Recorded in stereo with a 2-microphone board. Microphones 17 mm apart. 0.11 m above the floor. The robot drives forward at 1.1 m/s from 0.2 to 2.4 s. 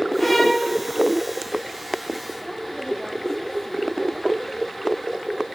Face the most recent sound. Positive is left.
turn(degrees=30)  # may be behind; listen again after turning